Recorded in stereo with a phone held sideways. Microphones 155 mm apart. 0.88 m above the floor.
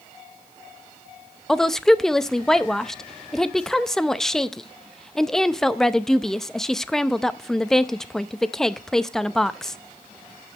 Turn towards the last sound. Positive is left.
turn(degrees=0)  # may be behind; listen again after turning